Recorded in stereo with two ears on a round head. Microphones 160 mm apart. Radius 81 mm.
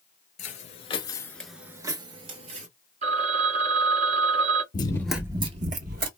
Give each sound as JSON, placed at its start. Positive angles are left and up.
{"t": 0.4, "sound": "footsteps", "side_deg": 45, "distance_m": 0.9}
{"t": 3.0, "sound": "a phone ringing", "side_deg": -35, "distance_m": 0.9}
{"t": 4.7, "sound": "running footsteps", "side_deg": 30, "distance_m": 0.7}